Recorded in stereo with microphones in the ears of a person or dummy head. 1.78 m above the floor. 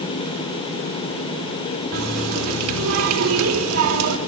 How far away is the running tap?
About 4 m.